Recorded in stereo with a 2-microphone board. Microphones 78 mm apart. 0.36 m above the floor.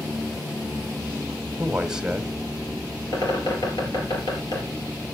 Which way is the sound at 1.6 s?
10° right (ahead or behind).